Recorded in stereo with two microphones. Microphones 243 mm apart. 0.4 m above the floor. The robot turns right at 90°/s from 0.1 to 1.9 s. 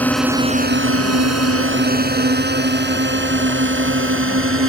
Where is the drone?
5° left (ahead or behind); by 4.7 s 55° right (ahead or behind).